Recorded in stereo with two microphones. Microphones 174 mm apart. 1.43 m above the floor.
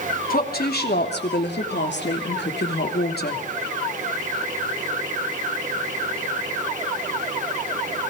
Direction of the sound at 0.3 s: 60° left (ahead or behind).